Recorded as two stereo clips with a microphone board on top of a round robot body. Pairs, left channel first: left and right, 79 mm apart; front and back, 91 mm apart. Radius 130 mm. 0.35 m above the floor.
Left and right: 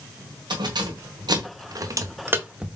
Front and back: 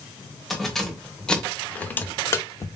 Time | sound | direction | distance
0.5 | keys jangling | 90° right | 1.5 m